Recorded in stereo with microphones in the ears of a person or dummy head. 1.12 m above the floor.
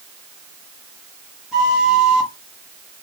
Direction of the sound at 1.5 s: Centre (ahead or behind).